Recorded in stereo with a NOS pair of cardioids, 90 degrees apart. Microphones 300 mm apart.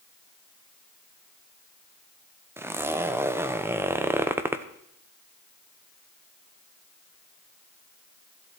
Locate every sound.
2.6 s a zipper: 10° right, 0.9 m